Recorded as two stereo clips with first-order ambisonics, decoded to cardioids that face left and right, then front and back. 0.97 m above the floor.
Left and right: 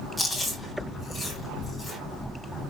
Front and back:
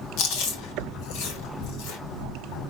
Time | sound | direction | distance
0.2 | chewing | straight ahead | 1.6 m